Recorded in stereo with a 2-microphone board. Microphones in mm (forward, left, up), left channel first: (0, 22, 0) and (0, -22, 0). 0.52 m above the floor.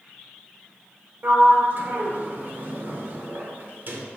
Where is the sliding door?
50° right (ahead or behind), 0.5 m.